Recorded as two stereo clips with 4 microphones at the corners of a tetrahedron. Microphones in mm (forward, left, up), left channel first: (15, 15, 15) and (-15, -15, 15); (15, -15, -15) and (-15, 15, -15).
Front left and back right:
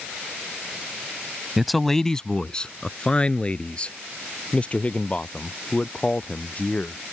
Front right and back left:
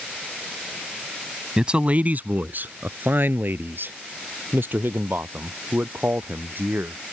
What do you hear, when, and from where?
1.6 s a man speaking: 150° left; by 7.0 s 105° left